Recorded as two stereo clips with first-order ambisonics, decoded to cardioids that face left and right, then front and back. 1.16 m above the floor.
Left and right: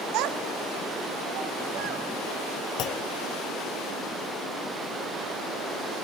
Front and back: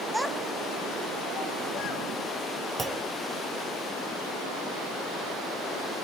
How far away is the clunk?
About 0.8 m.